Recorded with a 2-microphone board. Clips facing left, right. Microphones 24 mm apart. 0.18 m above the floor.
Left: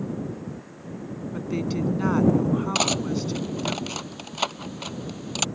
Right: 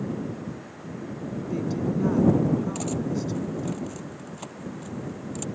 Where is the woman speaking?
40° left (ahead or behind).